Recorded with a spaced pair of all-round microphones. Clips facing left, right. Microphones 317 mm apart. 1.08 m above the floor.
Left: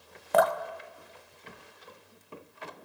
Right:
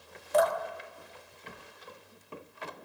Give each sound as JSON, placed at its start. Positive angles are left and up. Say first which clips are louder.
{"t": 0.3, "sound": "dripping", "louder": "left 1 dB", "side_deg": 70, "distance_m": 0.6}